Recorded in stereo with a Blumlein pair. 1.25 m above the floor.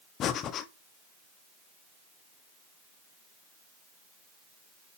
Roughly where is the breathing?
Ahead left.